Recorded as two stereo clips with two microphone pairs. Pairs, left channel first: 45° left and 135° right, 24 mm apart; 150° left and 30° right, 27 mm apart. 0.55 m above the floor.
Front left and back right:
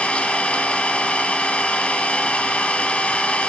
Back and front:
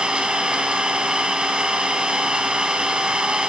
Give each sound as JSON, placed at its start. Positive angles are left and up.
{"t": 0.0, "sound": "an engine running", "azimuth_deg": 15, "distance_m": 2.0}